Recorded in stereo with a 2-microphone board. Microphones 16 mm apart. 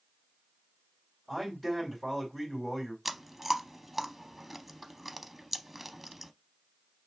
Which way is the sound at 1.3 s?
5° left (ahead or behind).